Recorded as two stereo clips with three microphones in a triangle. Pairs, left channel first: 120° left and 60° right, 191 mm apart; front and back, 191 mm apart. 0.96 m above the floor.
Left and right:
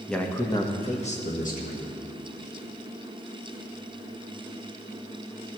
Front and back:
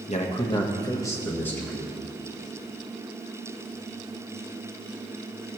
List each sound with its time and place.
0.1 s a man speaking: 30° left, 1.0 m; by 1.9 s 85° left, 1.9 m